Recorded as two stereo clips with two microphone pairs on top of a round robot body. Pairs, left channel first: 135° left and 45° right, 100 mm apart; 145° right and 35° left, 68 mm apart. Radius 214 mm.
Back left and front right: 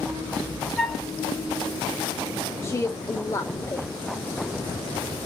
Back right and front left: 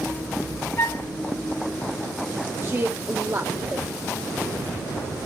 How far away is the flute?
About 1.5 m.